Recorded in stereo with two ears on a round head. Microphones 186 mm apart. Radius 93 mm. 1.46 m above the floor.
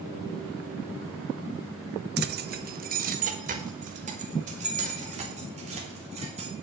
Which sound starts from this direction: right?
Keys jangling, at 2.2 s.